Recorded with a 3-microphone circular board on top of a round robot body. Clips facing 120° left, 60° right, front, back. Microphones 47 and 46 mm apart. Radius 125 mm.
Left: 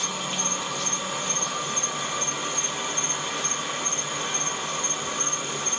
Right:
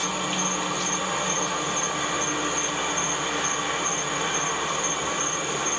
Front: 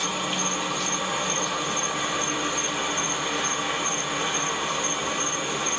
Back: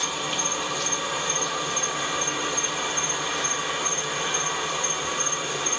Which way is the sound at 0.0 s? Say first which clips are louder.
Right 3 dB, front 1 dB; 65° right.